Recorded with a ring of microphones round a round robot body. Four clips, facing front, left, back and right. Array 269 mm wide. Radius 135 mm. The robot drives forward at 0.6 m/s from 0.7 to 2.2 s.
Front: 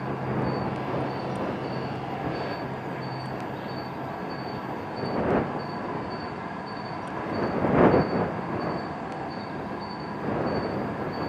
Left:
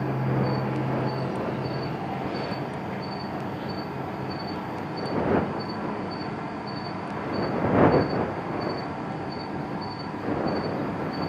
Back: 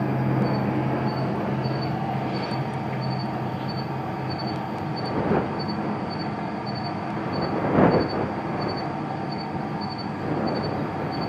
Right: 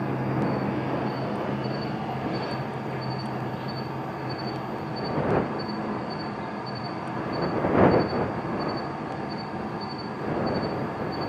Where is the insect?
170° right, 7 m; by 11.3 s 175° right, 7.5 m.